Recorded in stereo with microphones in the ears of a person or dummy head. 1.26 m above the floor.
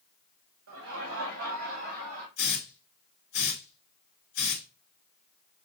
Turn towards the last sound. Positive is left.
turn(degrees=90)